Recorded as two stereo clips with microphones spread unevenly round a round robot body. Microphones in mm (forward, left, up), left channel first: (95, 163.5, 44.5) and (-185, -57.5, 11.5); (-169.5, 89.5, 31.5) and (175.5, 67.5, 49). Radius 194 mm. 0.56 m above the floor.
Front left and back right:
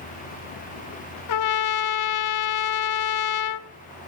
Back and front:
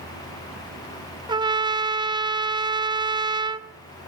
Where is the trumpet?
75° left, 0.6 m.